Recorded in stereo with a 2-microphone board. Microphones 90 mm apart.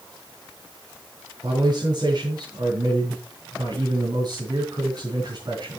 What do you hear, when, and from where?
1.4 s a man speaking: 55° right (ahead or behind), 4.5 m